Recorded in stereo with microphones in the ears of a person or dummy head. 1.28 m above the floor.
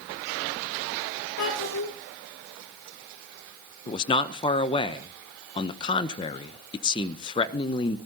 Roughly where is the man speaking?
Left.